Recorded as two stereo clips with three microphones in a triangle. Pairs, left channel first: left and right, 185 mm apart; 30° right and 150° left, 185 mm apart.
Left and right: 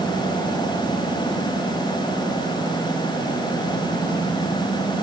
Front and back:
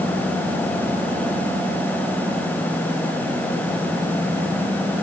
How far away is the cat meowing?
I don't hear a cat meowing.